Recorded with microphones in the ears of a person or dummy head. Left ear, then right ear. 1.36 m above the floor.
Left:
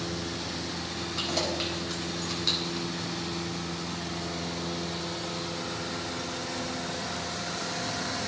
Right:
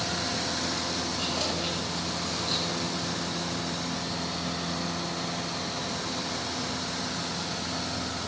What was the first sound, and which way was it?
Keys jangling, 80° left.